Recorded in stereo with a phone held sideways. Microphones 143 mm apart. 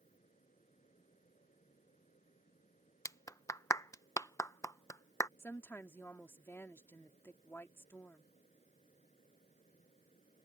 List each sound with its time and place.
0.0 s a fan: 60° left (ahead or behind)
3.0 s a clap: 20° left (ahead or behind)
5.4 s a woman speaking: 15° left (ahead or behind)